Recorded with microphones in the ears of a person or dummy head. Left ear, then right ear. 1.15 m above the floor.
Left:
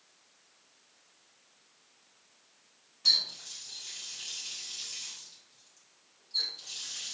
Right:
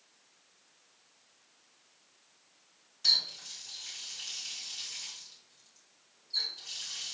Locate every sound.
3.0 s a running tap: 75° right (ahead or behind), 3 m